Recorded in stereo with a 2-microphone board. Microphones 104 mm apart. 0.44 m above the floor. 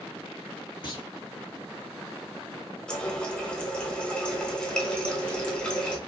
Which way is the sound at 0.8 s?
50° left (ahead or behind).